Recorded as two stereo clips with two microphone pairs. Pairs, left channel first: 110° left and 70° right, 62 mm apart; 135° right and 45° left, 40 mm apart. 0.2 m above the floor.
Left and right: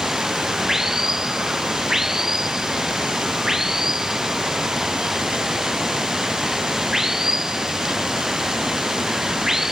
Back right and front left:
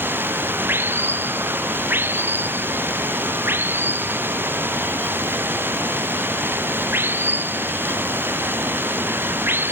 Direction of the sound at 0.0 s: 15° left.